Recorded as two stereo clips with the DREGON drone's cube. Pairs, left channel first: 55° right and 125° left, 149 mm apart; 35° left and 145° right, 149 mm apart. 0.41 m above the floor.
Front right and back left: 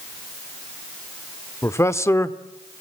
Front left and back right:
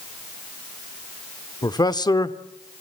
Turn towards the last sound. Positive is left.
turn(degrees=0)